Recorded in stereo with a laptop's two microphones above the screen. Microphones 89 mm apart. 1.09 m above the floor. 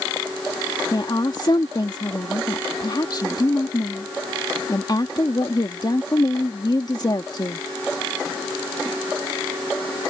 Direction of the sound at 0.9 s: 50° left (ahead or behind).